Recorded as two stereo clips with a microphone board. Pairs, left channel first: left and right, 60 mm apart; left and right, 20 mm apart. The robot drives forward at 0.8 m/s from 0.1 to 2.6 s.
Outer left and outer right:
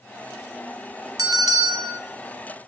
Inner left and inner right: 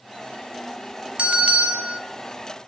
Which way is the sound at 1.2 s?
70° right (ahead or behind).